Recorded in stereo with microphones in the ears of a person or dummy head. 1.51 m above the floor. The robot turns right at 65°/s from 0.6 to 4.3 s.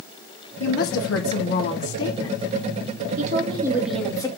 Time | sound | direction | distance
0.6 | a woman speaking | 60° left | 1.4 m
3.2 | a woman speaking | 50° right | 2.5 m